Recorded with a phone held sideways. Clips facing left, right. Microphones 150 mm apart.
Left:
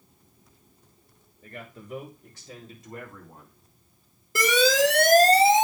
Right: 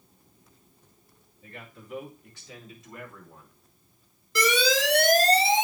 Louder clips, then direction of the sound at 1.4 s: Left 4 dB; 50° left (ahead or behind).